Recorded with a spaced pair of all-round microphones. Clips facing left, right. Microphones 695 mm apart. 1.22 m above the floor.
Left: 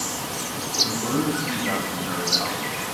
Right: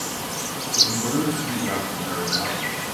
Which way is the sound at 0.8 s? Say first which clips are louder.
Right 1 dB; 10° left (ahead or behind).